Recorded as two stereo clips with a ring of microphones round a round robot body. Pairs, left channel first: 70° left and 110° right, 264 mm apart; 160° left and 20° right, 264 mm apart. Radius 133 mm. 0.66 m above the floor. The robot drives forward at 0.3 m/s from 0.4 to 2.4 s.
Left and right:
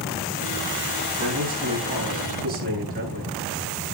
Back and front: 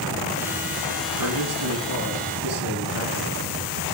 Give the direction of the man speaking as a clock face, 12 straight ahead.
2 o'clock.